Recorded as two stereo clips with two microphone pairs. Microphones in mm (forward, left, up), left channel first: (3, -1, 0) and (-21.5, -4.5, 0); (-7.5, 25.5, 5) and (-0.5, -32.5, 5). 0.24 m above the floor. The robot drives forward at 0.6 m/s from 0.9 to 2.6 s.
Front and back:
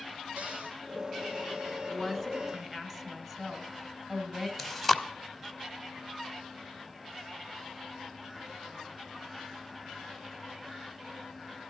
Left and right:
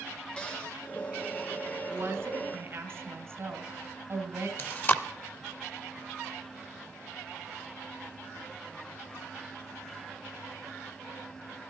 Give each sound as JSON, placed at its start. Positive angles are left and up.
{"t": 0.4, "sound": "a cupboard door", "azimuth_deg": 165, "distance_m": 3.0}
{"t": 1.9, "sound": "a woman speaking", "azimuth_deg": -100, "distance_m": 1.8}
{"t": 4.6, "sound": "chewing", "azimuth_deg": 95, "distance_m": 0.6}